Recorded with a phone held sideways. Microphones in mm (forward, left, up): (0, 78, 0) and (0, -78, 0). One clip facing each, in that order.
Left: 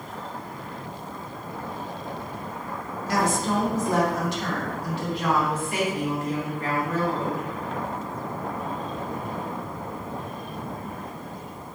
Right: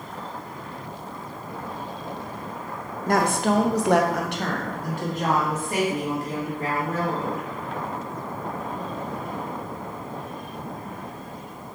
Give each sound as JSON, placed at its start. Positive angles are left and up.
{"t": 3.1, "sound": "a woman speaking", "side_deg": -50, "distance_m": 0.6}